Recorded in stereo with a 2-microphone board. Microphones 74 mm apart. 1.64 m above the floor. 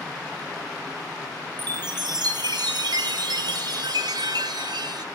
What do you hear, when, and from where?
1.6 s a chime: 70° right (ahead or behind), 1.5 m